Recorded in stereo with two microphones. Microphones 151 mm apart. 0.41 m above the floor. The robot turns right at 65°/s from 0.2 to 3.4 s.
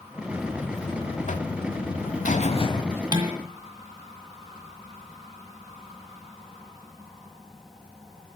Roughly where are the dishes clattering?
Right.